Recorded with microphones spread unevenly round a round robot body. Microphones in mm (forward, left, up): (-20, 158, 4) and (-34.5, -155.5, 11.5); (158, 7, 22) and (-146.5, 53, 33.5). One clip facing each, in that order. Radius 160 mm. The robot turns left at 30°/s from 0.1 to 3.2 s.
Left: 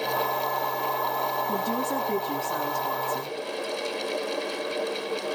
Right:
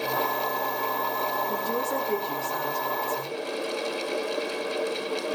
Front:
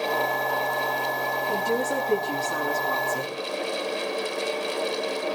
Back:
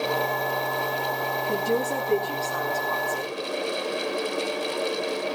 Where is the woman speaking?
95° left, 7 m; by 3.3 s 45° left, 7 m.